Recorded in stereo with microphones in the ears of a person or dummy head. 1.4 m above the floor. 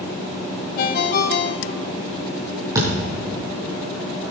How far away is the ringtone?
About 1.0 m.